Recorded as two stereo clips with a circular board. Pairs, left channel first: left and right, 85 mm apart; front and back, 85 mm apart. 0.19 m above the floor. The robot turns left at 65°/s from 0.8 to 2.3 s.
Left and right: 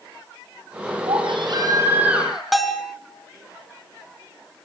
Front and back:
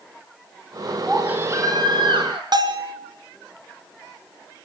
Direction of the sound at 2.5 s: Straight behind.